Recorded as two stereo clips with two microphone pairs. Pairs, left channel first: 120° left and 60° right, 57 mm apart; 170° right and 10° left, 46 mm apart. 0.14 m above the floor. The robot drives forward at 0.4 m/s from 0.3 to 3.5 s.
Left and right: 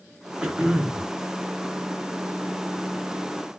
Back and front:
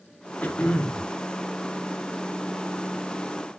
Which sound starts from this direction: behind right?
Throat clearing, at 0.4 s.